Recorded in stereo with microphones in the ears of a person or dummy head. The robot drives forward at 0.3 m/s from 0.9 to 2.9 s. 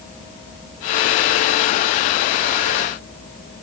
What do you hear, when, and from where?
Only background noise.